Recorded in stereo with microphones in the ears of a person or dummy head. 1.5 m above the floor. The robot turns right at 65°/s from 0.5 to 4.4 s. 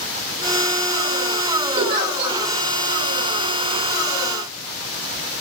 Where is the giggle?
65° right, 1.0 m; by 2.4 s 25° right, 1.0 m.